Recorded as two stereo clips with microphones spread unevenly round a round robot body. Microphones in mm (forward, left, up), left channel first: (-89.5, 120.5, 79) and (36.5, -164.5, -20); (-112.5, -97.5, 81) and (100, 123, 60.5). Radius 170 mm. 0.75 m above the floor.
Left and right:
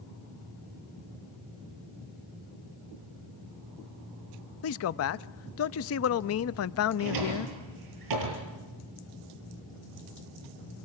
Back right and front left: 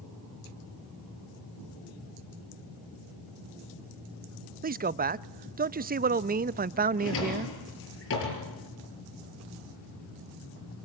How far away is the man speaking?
About 0.5 m.